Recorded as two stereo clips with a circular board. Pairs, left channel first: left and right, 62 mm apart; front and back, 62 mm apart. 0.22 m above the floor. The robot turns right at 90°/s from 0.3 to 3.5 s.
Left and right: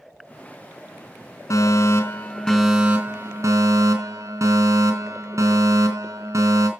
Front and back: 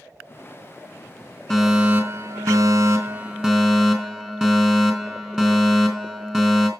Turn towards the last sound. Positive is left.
turn(degrees=-105)